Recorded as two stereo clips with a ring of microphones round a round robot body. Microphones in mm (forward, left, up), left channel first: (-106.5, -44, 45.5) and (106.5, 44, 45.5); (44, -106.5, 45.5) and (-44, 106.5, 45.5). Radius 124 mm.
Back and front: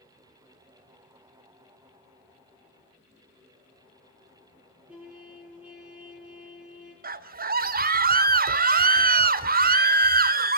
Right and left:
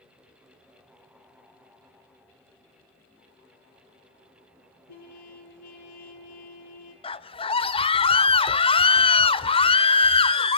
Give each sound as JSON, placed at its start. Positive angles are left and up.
{"t": 4.9, "sound": "a trumpet", "azimuth_deg": -60, "distance_m": 7.5}
{"t": 7.0, "sound": "a scream", "azimuth_deg": -10, "distance_m": 1.5}